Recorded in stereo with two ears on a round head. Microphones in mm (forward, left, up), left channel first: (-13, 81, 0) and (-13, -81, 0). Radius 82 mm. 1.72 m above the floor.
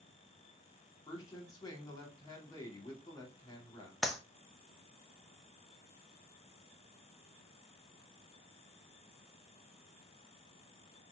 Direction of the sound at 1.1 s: 20° left (ahead or behind).